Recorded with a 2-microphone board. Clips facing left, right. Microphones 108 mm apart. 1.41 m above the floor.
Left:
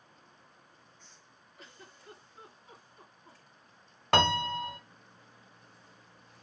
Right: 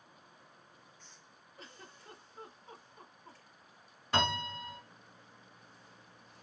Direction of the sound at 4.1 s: 75° left (ahead or behind).